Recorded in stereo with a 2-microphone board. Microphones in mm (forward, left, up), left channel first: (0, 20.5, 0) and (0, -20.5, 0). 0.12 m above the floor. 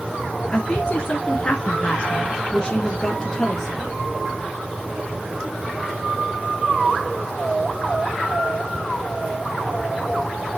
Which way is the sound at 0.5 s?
25° left (ahead or behind).